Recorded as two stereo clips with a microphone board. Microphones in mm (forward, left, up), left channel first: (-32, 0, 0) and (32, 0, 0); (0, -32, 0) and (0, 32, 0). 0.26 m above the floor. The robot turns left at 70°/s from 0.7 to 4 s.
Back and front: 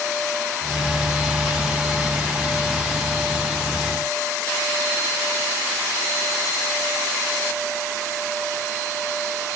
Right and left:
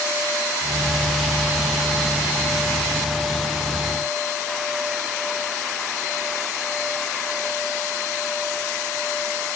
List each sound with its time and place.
Only background noise.